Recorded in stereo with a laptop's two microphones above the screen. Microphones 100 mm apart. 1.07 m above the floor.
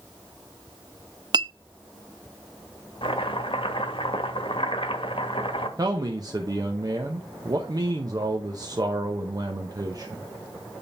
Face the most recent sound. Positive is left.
turn(degrees=-40)  # may be behind; listen again after turning